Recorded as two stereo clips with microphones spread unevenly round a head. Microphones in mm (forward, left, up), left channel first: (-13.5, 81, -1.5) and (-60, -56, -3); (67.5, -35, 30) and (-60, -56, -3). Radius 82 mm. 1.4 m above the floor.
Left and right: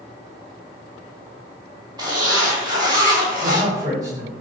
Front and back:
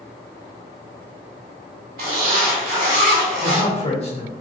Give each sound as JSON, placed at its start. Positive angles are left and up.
{"t": 2.0, "sound": "a zipper", "azimuth_deg": -165, "distance_m": 1.7}
{"t": 3.4, "sound": "a man speaking", "azimuth_deg": -35, "distance_m": 1.5}